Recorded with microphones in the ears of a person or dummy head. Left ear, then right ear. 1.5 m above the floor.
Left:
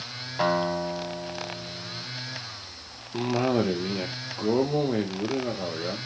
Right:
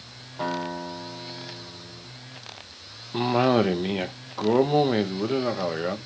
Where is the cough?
35° right (ahead or behind), 1.1 m.